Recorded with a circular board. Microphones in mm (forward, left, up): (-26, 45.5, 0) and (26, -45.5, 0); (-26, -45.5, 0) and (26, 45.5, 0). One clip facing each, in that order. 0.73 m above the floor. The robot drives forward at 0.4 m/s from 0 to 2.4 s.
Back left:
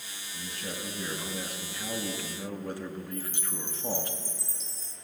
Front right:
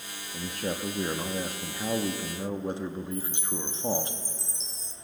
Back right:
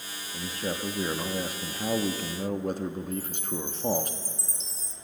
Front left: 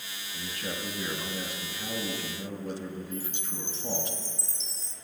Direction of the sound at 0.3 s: 60° right.